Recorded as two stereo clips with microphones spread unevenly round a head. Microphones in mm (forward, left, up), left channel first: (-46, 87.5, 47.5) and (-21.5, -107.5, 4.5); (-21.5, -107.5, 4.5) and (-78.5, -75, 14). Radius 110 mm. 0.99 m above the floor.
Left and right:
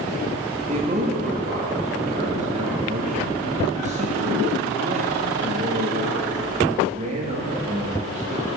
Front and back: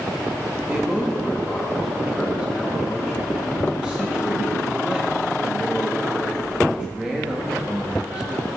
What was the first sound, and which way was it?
A man speaking, 130° right.